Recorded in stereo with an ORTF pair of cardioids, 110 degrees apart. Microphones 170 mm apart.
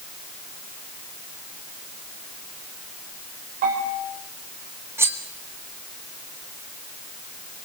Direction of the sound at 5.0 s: 15° right.